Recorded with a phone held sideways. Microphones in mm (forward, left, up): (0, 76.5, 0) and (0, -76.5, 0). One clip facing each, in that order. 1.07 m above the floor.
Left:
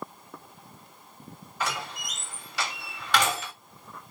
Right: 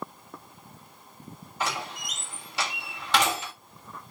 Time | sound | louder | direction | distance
1.6 | a door slam | right 1 dB | 25° right (ahead or behind) | 1.8 m